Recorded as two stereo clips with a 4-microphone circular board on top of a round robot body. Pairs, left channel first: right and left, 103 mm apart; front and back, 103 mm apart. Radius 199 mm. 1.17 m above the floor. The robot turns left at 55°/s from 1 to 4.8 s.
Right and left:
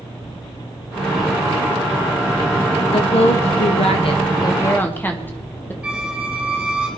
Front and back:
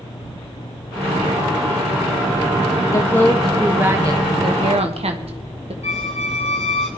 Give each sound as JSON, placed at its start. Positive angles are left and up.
{"t": 2.9, "sound": "a woman speaking", "azimuth_deg": -60, "distance_m": 1.6}
{"t": 5.8, "sound": "a squeak", "azimuth_deg": 10, "distance_m": 1.0}